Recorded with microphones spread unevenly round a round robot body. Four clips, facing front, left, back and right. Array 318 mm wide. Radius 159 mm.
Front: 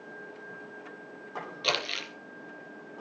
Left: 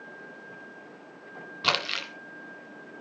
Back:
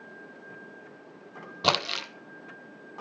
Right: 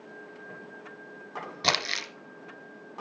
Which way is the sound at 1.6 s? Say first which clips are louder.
Left 1 dB, back 6 dB; 170° right.